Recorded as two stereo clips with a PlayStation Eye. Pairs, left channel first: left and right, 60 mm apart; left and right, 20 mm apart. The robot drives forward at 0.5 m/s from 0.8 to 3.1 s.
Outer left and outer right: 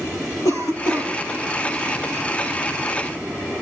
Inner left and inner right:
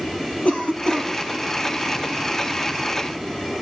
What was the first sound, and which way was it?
A cough, 75° left (ahead or behind).